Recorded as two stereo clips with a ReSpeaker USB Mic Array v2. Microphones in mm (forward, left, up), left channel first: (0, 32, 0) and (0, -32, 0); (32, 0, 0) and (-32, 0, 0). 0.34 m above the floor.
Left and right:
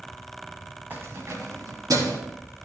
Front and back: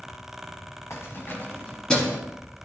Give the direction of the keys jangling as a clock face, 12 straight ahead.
1 o'clock.